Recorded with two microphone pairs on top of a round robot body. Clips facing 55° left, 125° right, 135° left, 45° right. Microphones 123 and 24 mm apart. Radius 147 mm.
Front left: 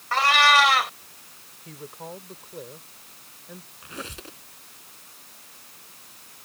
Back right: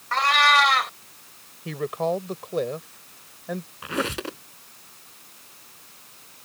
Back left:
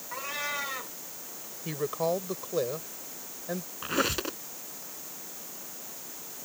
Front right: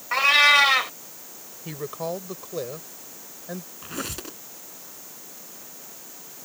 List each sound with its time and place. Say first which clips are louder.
0.1 s a cat meowing: front left 1 dB, front right 18 dB; 35° right
1.6 s a woman speaking: back right 14 dB, back left 2 dB; 140° right
3.8 s a squeak: back right 11 dB, back left 7 dB; 155° right